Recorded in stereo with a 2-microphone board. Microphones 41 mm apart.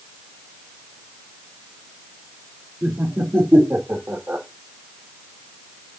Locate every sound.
2.8 s laughter: 50° right (ahead or behind), 3.5 m; by 4.5 s 55° right (ahead or behind), 2 m